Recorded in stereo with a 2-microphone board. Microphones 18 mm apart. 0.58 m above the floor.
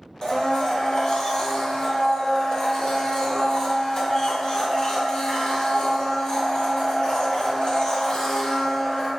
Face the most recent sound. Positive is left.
turn(degrees=45)  # may be behind; listen again after turning